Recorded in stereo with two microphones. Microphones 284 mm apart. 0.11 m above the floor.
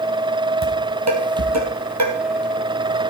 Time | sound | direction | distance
0.6 | dishes clattering | 70° right (ahead or behind) | 2.5 m